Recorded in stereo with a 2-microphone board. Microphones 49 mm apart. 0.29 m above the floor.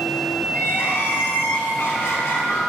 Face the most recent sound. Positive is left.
turn(degrees=60)  # may be behind; listen again after turning